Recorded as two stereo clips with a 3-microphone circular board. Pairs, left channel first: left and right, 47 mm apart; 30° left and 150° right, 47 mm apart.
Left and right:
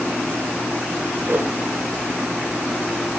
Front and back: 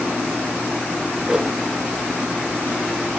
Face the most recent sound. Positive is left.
turn(degrees=-80)